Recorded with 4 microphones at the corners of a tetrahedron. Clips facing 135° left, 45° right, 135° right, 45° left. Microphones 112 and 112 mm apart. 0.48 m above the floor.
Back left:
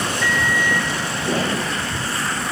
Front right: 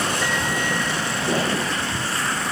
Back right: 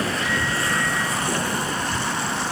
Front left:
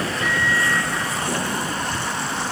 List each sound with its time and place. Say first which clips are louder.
0.2 s a microwave: back left 3 dB, front left 2 dB; 25° left, 1.0 m